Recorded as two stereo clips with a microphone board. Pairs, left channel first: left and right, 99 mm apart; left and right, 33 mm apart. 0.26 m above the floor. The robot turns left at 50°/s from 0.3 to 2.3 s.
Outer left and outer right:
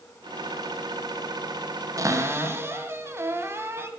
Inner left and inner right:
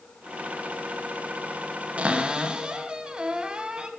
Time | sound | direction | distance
2.0 | a cupboard door | 35° right (ahead or behind) | 1.1 m